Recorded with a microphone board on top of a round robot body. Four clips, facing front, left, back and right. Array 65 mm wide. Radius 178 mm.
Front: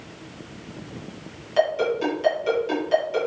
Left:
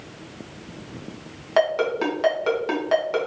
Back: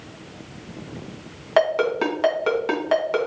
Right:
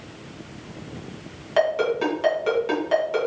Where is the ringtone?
160° left, 2.5 m.